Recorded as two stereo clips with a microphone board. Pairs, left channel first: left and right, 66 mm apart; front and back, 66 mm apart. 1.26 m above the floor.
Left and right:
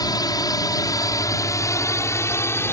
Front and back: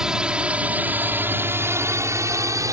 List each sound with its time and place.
0.0 s a drone: 100° left; by 2.7 s 145° left